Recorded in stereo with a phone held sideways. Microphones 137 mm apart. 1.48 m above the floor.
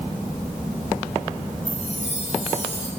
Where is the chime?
60° left (ahead or behind), 4.5 m.